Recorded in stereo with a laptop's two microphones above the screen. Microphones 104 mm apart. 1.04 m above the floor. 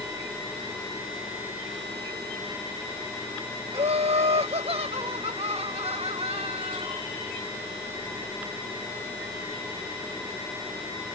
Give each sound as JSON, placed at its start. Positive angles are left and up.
{"t": 3.7, "sound": "laughter", "side_deg": -70}